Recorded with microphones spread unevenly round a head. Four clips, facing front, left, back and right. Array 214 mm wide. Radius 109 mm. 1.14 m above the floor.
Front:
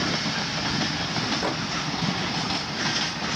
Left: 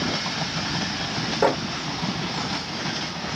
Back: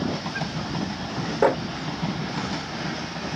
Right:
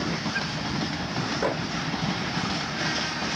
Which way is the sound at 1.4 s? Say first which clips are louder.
Left 7 dB, back 12 dB; 145° left.